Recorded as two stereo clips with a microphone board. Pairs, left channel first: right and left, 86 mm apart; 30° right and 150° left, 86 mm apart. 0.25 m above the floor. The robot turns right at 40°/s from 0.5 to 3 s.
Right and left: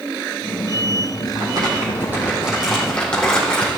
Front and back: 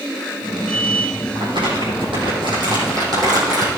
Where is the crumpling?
125° left, 4 m; by 3.7 s 165° right, 4 m.